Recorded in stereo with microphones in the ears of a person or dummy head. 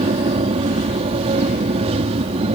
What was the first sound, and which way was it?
An aircraft, 30° right (ahead or behind).